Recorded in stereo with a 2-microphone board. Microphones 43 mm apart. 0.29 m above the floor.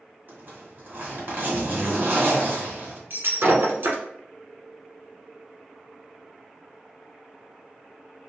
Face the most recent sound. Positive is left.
turn(degrees=-65)  # may be behind; listen again after turning